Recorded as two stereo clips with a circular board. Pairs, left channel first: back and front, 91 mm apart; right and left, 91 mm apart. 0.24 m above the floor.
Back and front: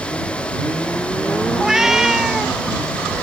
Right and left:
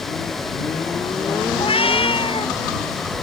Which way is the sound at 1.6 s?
85° right.